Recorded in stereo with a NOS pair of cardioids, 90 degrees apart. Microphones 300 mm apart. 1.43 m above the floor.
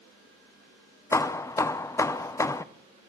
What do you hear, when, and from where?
1.1 s hammering: 10° left, 0.6 m